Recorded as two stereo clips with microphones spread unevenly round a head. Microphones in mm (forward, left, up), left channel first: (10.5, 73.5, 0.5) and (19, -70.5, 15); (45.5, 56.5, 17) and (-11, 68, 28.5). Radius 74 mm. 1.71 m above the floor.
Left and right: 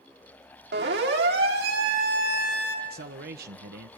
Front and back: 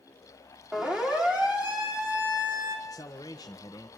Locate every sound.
0.7 s a siren: 110° right, 4 m; by 2.8 s 120° right, 4.5 m
2.9 s a man speaking: 65° right, 1.4 m